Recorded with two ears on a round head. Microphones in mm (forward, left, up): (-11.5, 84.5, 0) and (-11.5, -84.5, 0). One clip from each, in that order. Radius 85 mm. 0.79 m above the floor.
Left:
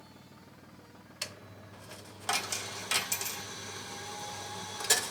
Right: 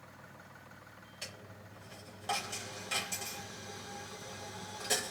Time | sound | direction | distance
1.2 | a dropped coin | 40° left (ahead or behind) | 0.6 m